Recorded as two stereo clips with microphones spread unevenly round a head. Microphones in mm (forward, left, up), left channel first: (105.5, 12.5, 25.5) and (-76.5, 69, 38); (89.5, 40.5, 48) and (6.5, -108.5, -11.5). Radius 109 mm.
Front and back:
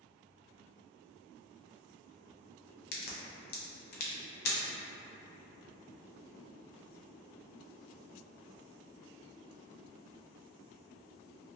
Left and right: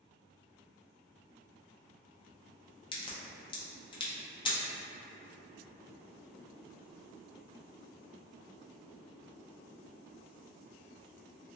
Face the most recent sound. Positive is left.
turn(degrees=15)